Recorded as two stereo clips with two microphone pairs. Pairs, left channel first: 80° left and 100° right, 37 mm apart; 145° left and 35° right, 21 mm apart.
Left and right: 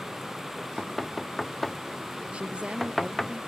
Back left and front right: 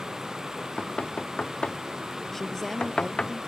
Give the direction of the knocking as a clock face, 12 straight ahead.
7 o'clock.